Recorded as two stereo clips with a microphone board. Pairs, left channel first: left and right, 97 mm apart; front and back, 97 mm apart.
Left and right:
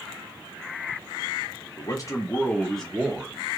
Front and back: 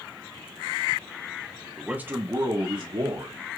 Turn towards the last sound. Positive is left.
turn(degrees=-170)